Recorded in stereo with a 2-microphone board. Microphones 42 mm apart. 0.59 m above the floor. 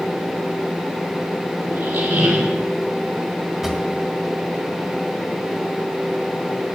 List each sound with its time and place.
1.7 s a squeak: 55° right (ahead or behind), 4 m
3.6 s a drawer: 10° right (ahead or behind), 1.6 m